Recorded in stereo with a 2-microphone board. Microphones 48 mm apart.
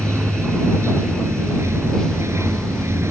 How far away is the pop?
No pop in this recording.